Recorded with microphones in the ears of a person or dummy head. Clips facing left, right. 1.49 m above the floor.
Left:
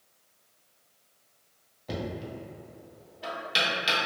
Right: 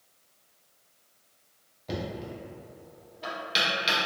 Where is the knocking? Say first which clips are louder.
Even; 5° left (ahead or behind), 0.7 m.